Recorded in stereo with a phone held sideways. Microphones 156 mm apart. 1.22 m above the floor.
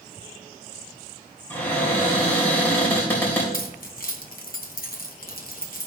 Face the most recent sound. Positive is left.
turn(degrees=65)  # may be behind; listen again after turning